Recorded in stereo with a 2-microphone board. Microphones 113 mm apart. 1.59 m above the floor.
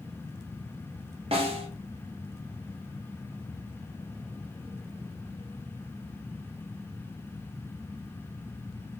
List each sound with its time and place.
1.3 s a snare drum: 60° right (ahead or behind), 0.7 m